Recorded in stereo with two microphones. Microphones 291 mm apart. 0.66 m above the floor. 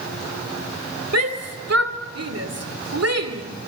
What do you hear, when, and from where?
1.1 s a shout: 60° right (ahead or behind), 2 m